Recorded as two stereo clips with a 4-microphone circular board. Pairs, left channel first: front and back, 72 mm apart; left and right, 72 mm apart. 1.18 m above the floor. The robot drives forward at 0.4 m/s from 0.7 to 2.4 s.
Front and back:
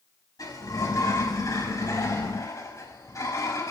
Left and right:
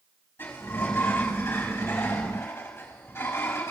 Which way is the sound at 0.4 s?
30° left.